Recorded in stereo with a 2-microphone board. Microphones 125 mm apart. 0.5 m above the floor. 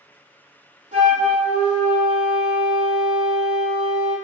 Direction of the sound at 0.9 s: 80° right.